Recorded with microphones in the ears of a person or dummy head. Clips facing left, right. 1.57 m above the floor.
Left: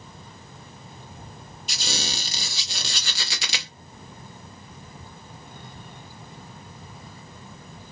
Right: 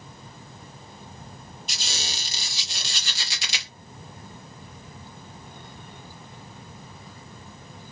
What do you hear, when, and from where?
1.7 s a squeak: 30° left (ahead or behind), 0.7 m